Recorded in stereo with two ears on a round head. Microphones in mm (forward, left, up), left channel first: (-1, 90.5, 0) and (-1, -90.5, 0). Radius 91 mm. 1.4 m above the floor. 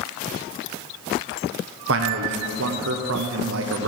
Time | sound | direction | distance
1.9 | a man speaking | 65° right (ahead or behind) | 0.9 m